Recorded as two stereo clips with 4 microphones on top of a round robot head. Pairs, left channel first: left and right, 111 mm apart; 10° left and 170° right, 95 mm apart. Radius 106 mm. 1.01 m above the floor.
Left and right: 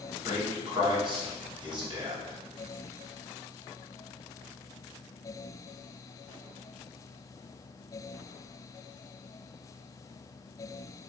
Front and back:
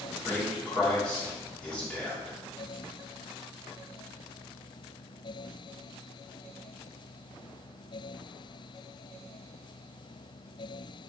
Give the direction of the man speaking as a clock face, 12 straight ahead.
2 o'clock.